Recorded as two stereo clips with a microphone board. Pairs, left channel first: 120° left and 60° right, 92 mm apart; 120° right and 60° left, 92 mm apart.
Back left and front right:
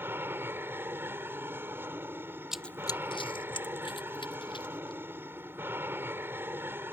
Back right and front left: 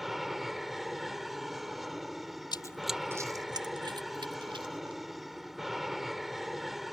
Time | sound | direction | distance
0.0 | an aircraft | 30° right | ?
2.5 | running footsteps | 140° right | ?